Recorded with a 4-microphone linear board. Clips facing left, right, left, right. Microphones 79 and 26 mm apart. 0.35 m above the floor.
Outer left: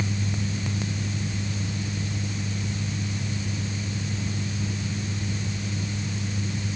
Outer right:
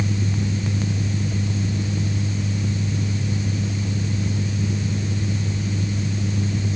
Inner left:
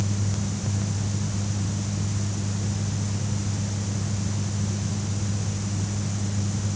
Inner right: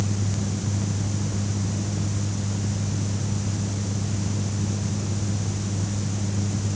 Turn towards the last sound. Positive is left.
No sound to turn to.